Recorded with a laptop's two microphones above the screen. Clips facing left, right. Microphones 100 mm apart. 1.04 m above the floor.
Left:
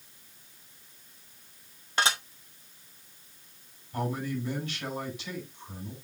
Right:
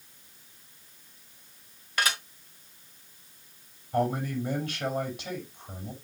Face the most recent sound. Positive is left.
turn(degrees=-45)  # may be behind; listen again after turning